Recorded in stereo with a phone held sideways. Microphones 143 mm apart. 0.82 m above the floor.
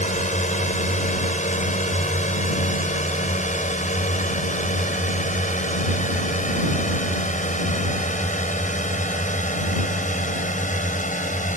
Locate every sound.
0.0 s a drone: 60° left (ahead or behind); by 11.6 s 65° left (ahead or behind)